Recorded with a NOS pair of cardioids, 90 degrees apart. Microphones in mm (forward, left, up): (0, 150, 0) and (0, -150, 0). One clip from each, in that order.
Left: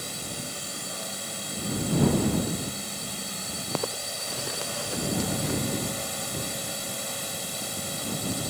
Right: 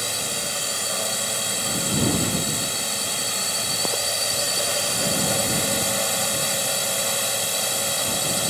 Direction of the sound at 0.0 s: 70° right.